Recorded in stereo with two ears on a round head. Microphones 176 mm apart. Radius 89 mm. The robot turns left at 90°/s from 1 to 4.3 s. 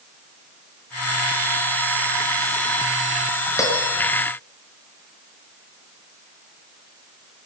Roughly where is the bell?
Centre.